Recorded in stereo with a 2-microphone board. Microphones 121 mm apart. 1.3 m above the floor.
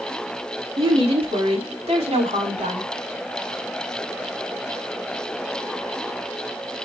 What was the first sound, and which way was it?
A woman speaking, 55° right (ahead or behind).